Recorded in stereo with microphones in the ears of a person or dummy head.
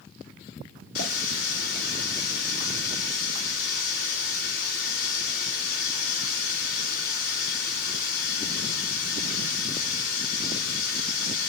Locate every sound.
0.9 s a running tap: 50° left (ahead or behind), 1.7 m